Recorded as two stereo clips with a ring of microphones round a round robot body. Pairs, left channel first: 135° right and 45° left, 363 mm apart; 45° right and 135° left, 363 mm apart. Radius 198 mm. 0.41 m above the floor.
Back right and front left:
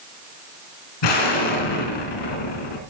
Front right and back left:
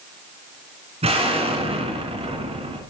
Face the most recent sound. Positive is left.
turn(degrees=-150)